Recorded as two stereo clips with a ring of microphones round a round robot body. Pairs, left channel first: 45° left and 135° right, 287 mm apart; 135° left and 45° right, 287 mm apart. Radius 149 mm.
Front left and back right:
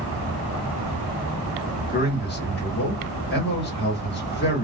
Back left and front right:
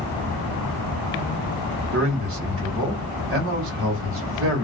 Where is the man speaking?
5° right, 1.4 m.